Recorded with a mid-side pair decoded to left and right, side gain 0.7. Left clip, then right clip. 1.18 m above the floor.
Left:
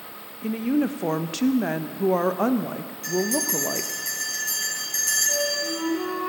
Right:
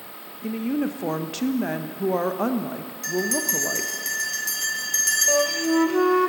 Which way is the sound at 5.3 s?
60° right.